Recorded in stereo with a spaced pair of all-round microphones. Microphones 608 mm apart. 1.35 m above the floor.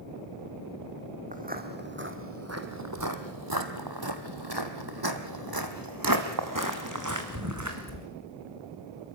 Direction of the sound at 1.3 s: 15° right (ahead or behind).